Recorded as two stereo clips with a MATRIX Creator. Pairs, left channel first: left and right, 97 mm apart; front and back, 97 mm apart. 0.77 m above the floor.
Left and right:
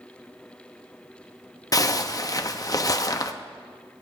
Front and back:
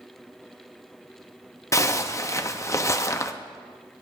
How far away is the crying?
No crying in this recording.